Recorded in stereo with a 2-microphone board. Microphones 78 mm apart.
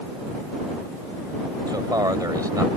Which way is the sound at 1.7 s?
60° right (ahead or behind).